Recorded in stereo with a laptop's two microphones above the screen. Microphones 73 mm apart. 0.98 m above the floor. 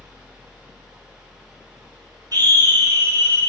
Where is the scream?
60° right (ahead or behind), 1.1 m.